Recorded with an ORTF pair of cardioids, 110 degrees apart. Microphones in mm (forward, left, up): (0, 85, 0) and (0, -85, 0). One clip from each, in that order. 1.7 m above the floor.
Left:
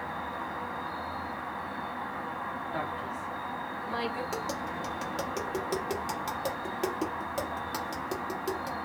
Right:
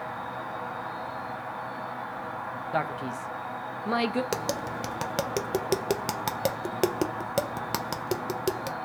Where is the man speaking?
50° right, 0.7 m.